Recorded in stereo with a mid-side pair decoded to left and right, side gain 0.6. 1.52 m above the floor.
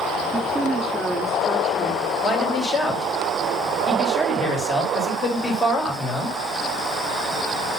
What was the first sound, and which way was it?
A woman speaking, 10° right.